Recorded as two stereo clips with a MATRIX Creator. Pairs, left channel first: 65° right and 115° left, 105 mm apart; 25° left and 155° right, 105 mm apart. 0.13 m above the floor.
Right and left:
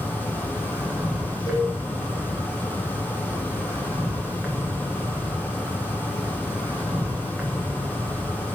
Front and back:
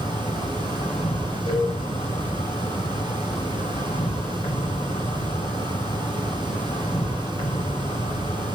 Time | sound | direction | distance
0.0 | an insect | 35° left | 4.5 m
1.5 | a cowbell | 15° right | 4 m